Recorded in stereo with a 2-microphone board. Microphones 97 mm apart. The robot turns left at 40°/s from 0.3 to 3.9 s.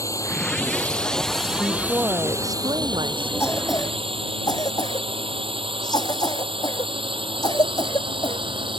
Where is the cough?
25° left (ahead or behind); by 8.4 s 45° left (ahead or behind).